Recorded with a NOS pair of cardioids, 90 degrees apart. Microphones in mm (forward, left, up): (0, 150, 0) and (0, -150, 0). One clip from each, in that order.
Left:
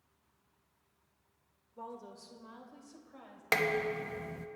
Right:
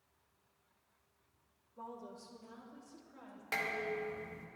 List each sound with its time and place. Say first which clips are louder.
1.8 s a woman speaking: left 2 dB; 25° left, 2.0 m; by 3.4 s 35° left, 3 m
3.5 s dishes clattering: left 6 dB; 65° left, 0.9 m